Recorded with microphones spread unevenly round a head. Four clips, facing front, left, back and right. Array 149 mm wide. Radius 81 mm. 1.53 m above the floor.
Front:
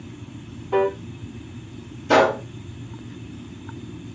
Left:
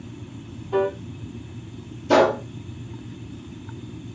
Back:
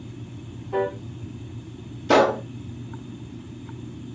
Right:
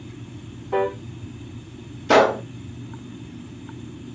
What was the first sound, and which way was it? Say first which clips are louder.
A piano: even, front 5 dB; 35° right.